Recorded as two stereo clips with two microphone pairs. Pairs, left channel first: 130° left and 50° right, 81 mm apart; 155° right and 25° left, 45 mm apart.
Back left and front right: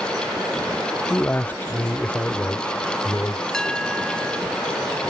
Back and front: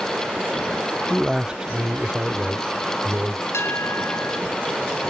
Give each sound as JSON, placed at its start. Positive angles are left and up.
{"t": 1.1, "sound": "a man speaking", "azimuth_deg": 95}
{"t": 3.5, "sound": "a bell", "azimuth_deg": -145}